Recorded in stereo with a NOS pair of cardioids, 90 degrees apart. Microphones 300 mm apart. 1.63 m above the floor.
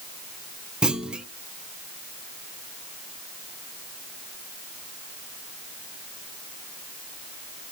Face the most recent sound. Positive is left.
turn(degrees=-5)